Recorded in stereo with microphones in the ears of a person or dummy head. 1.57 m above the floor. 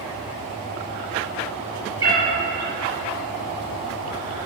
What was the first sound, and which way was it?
A cat meowing, 20° right (ahead or behind).